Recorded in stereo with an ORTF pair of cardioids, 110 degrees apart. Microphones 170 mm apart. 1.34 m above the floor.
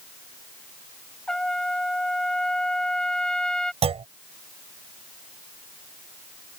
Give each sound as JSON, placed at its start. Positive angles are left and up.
{"t": 1.3, "sound": "a trumpet", "azimuth_deg": 5}
{"t": 3.8, "sound": "a clunk", "azimuth_deg": -35}